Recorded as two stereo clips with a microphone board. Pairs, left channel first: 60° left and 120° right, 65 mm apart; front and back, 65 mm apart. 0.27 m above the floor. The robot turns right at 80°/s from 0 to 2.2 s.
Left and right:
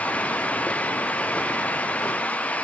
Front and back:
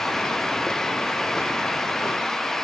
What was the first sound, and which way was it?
Only background noise.